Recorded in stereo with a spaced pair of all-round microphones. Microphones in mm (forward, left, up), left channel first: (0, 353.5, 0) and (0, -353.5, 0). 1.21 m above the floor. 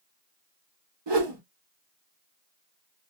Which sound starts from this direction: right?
A whoosh, at 1.1 s.